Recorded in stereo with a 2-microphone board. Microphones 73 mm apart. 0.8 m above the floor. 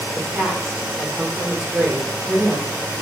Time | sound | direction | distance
0.1 | a woman speaking | 5° right (ahead or behind) | 2.5 m